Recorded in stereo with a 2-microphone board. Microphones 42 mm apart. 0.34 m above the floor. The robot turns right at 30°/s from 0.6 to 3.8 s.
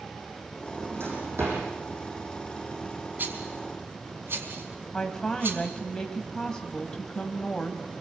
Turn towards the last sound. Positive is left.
turn(degrees=20)  # may be behind; listen again after turning